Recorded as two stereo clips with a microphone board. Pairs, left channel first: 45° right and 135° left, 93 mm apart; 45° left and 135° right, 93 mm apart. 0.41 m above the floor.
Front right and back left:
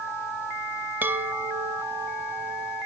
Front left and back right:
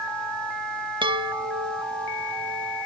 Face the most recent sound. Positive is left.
turn(degrees=-155)